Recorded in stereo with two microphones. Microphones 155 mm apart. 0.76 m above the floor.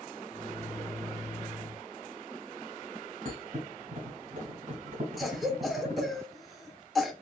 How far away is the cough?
About 1.0 m.